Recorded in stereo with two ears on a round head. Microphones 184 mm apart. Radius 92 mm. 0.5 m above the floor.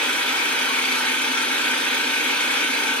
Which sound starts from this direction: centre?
An engine running, at 0.0 s.